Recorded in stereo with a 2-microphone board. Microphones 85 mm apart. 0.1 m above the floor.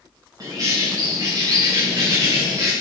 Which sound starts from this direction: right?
A bird, at 0.4 s.